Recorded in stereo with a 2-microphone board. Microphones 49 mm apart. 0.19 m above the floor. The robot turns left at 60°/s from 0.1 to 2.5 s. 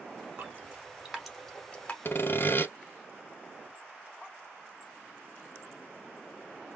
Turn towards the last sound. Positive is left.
turn(degrees=50)  # may be behind; listen again after turning